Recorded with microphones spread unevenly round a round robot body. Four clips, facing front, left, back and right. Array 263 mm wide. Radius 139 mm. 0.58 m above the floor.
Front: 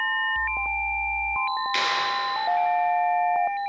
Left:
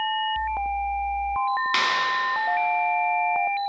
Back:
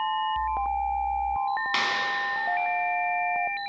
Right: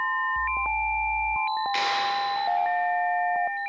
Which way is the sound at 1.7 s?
130° left.